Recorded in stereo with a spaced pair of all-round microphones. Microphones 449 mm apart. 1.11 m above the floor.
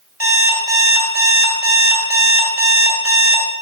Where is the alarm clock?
30° right (ahead or behind), 3 m.